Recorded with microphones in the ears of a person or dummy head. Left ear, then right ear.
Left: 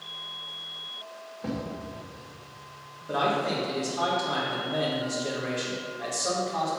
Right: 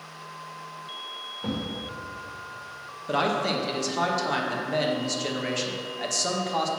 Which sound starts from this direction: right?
A man speaking, at 3.1 s.